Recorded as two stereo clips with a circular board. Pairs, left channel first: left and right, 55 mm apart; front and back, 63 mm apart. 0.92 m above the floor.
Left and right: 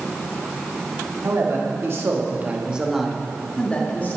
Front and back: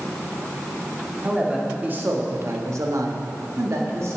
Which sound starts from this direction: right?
A man speaking, at 1.2 s.